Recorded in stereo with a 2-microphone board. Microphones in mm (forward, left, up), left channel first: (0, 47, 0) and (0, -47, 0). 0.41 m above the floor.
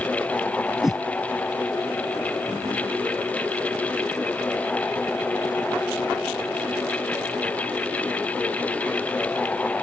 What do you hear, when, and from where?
0.8 s a whoosh: 5° right (ahead or behind)